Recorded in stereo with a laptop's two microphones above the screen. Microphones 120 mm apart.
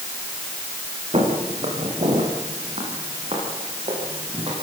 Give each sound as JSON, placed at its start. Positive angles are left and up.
{"t": 1.1, "sound": "footsteps", "side_deg": -55, "distance_m": 8.0}